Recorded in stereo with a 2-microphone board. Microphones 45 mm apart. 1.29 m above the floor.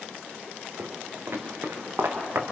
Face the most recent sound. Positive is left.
turn(degrees=-55)  # may be behind; listen again after turning